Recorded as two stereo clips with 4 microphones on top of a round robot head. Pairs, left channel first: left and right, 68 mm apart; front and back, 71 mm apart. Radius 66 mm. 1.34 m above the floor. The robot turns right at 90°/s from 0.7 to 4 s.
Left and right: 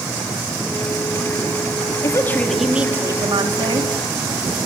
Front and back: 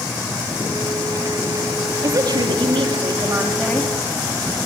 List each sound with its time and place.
2.0 s a woman speaking: 130° left, 3.5 m; by 4.0 s 55° right, 3.5 m